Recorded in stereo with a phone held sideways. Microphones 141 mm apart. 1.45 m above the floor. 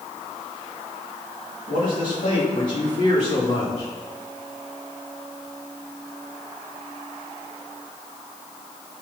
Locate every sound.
1.7 s a man speaking: 85° left, 2.5 m; by 3.9 s 50° left (ahead or behind), 3.5 m